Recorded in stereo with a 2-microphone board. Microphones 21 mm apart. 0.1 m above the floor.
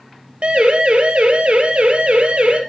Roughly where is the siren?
Right.